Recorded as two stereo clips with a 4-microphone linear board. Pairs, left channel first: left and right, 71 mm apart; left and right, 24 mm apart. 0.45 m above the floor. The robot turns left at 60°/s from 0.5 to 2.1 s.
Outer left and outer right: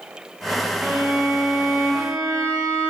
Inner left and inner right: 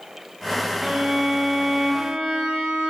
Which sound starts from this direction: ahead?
A violin, at 0.8 s.